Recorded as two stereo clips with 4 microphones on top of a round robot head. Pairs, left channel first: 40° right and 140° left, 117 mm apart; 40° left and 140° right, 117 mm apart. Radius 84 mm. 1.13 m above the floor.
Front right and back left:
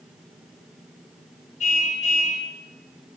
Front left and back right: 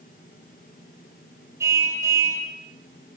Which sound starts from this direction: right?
A car horn, at 1.6 s.